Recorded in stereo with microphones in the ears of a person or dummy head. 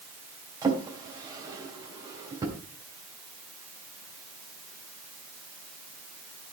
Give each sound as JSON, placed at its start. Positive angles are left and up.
{"t": 0.6, "sound": "a drawer", "side_deg": -25, "distance_m": 3.0}